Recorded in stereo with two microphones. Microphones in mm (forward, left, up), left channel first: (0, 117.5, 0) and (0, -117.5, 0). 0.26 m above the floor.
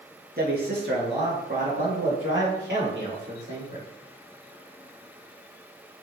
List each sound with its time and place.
0.4 s a man speaking: 45° right (ahead or behind), 3.5 m; by 3.8 s 60° right (ahead or behind), 7 m